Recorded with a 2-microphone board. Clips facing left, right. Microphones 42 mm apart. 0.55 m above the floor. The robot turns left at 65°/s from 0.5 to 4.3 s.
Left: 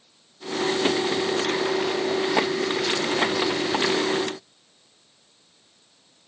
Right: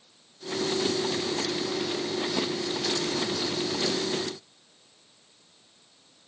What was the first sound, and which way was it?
Only background noise.